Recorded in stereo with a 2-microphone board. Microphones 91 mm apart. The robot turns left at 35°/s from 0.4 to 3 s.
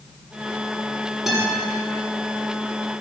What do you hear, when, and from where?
1.3 s a guitar: 5° right (ahead or behind), 6.5 m; by 1.6 s 5° left (ahead or behind), 6.5 m